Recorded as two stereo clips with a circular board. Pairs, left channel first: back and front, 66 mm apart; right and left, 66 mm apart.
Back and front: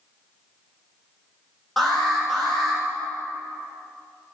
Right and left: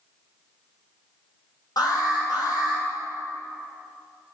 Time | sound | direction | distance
1.8 | an alarm | 95° right | 5.5 m